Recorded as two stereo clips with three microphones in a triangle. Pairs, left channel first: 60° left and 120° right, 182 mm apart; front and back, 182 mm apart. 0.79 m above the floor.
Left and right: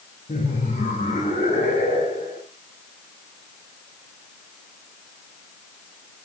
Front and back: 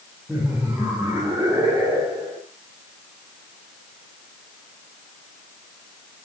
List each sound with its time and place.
0.3 s laughter: 100° left, 3.5 m; by 2.4 s 105° left, 5.5 m